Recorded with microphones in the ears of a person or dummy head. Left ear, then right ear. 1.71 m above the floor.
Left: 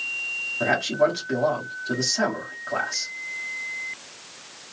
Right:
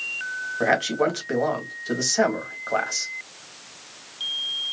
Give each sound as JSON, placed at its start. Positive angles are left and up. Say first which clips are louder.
{"t": 0.6, "sound": "a man speaking", "louder": "even", "side_deg": -40, "distance_m": 1.3}